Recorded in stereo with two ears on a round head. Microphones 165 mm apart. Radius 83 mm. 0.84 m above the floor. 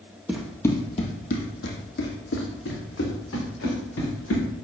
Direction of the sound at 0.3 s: 5° right (ahead or behind).